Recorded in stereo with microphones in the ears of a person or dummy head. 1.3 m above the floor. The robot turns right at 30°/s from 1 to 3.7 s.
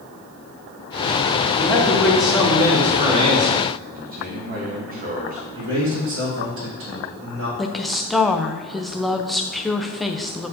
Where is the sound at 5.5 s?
75° right (ahead or behind), 3 m.